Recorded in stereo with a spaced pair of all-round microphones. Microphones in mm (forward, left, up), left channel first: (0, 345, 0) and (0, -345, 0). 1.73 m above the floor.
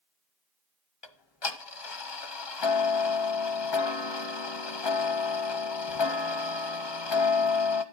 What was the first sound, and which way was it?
Ticking, 40° left (ahead or behind).